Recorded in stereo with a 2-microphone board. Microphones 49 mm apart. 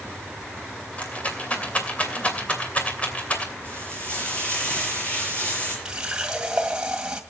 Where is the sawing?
I don't hear sawing.